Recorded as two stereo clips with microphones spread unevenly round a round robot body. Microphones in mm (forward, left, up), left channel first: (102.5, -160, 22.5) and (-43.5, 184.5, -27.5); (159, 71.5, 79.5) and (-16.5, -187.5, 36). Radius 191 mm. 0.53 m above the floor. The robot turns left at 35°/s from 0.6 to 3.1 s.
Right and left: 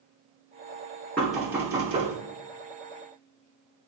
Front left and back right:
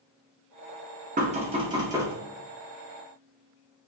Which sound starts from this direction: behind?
Knocking, at 1.2 s.